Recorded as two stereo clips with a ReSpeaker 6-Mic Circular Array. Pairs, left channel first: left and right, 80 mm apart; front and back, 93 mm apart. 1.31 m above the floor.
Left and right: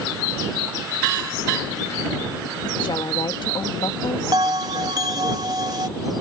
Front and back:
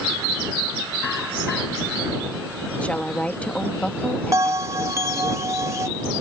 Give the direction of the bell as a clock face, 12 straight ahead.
4 o'clock.